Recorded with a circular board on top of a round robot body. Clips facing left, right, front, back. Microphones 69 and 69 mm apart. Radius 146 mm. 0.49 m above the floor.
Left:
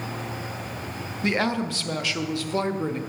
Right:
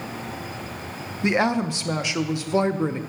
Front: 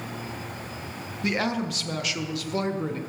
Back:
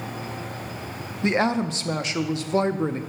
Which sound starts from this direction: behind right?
A woman speaking, at 1.2 s.